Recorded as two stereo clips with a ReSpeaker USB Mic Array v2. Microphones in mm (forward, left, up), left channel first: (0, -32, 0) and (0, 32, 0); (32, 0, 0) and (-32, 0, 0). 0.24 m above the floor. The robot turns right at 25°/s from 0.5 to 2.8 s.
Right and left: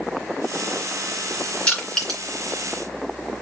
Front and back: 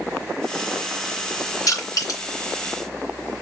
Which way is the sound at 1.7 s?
20° right.